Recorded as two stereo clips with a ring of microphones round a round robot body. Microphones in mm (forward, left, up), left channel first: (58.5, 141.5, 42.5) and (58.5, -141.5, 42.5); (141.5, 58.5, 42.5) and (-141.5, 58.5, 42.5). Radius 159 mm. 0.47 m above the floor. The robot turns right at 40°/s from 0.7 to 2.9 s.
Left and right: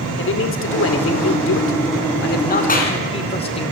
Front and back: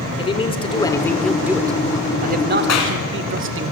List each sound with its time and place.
0.2 s a man speaking: 65° left, 1.8 m; by 3.7 s 155° left, 1.8 m
2.7 s a clap: 30° left, 5 m; by 3.0 s 35° left, 5 m